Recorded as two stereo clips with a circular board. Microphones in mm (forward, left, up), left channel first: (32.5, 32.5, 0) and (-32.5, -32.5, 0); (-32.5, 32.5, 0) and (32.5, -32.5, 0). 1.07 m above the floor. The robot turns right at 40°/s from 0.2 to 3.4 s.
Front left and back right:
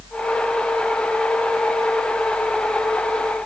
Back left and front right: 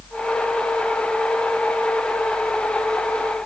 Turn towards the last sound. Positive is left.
No sound to turn to.